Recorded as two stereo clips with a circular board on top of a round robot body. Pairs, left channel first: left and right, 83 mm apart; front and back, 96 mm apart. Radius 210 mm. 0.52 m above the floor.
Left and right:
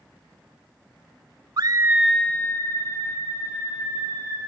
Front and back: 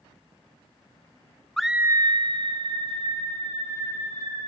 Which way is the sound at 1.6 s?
85° right.